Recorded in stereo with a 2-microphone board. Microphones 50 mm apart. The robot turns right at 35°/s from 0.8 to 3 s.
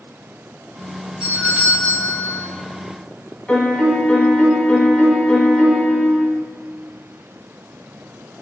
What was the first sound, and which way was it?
A doorbell, 20° right (ahead or behind).